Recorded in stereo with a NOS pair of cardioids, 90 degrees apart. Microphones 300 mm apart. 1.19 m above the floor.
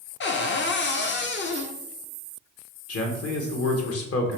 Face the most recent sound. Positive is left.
turn(degrees=55)